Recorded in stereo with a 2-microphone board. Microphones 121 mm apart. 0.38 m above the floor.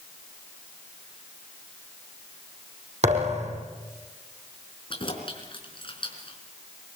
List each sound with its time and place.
3.0 s a thud: 70° right (ahead or behind), 4 m
4.9 s keys jangling: 45° left (ahead or behind), 4 m